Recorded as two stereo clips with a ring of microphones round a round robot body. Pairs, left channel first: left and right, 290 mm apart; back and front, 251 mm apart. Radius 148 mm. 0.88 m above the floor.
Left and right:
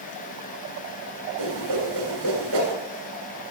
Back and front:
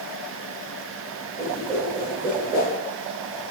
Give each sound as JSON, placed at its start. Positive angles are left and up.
{"t": 1.4, "sound": "a whoosh", "azimuth_deg": -80, "distance_m": 1.7}